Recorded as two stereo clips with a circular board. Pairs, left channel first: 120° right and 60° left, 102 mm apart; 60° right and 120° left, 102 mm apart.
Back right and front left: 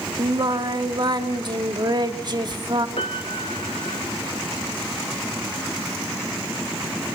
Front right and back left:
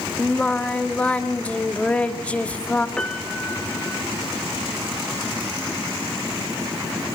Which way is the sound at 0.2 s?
15° left.